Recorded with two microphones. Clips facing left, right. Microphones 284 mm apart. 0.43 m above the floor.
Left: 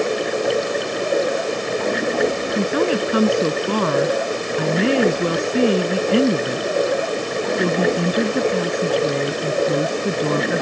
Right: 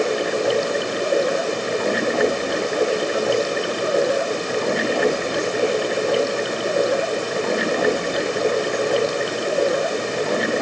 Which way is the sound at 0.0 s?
Centre (ahead or behind).